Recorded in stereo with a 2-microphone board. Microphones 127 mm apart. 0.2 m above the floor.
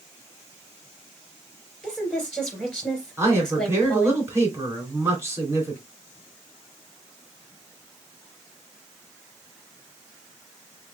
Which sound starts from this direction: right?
A man speaking, at 3.2 s.